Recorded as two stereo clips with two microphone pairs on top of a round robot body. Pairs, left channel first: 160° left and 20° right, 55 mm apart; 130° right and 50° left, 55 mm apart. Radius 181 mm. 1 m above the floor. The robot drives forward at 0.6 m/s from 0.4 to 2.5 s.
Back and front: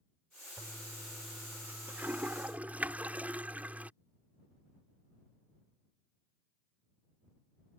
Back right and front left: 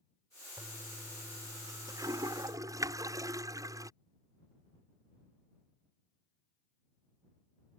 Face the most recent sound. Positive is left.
turn(degrees=45)